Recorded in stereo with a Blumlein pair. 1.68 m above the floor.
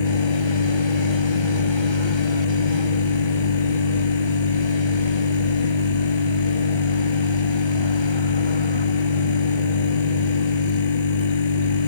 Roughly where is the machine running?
Ahead left.